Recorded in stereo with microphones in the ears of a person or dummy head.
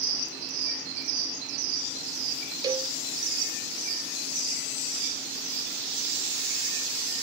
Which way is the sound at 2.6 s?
20° right (ahead or behind).